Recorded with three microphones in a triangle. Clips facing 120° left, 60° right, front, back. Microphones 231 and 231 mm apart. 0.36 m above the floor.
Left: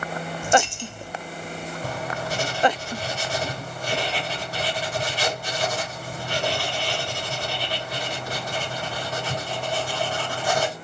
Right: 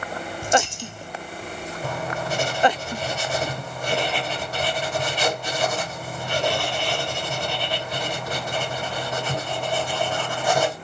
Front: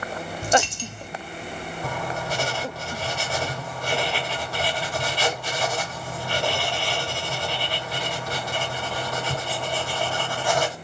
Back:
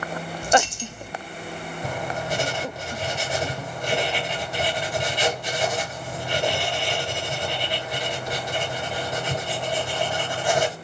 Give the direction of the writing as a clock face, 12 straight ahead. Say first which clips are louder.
Right 3 dB, back 1 dB; 4 o'clock.